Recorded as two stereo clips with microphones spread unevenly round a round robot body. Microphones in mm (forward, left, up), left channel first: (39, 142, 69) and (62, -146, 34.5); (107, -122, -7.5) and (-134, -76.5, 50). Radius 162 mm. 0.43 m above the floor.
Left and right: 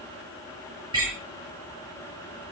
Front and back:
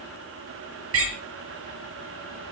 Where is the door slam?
160° right, 9 m.